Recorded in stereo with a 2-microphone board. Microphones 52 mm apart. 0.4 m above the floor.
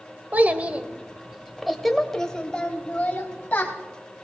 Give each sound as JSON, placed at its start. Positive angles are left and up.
{"t": 0.3, "sound": "a child speaking", "side_deg": -35, "distance_m": 1.3}